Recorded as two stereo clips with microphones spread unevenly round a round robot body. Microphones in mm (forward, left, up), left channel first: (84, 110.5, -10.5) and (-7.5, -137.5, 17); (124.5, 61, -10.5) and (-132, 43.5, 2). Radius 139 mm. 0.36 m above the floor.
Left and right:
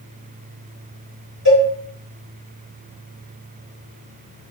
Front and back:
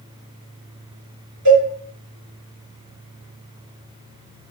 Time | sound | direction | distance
1.4 | a cowbell | 170° right | 2.5 m